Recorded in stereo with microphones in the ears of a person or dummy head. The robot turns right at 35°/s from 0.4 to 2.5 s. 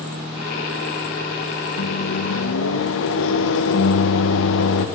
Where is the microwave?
55° left (ahead or behind), 1.0 m; by 4.9 s 70° left (ahead or behind), 1.0 m.